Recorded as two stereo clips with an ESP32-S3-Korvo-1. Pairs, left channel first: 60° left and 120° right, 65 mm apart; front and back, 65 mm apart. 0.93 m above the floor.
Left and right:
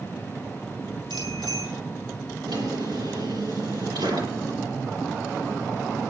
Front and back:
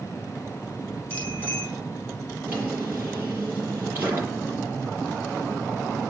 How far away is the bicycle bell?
About 10 m.